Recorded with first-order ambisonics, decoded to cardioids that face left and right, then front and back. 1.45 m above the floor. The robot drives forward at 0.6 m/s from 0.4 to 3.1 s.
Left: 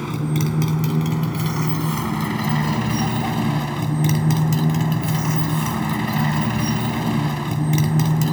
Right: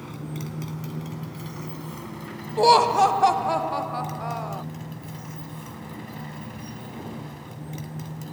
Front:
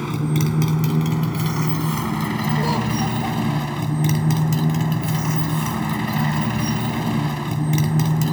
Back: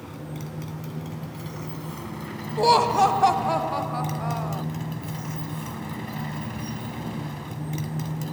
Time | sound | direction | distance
0.0 | a motorcycle | 40° left | ?
2.6 | laughter | 110° right | ?